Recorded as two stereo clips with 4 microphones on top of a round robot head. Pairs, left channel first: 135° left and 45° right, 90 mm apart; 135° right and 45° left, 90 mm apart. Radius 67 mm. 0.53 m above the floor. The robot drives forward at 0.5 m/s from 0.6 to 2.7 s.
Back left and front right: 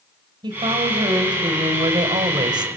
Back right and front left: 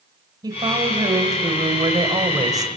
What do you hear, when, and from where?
0.4 s a woman speaking: straight ahead, 3 m